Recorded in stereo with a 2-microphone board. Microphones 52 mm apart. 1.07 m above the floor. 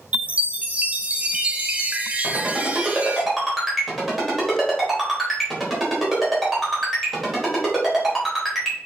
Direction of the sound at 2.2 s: 5° right (ahead or behind).